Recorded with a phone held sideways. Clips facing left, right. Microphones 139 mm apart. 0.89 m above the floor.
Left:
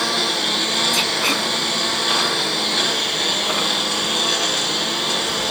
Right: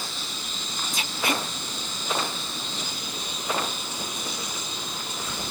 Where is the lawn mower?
75° left (ahead or behind).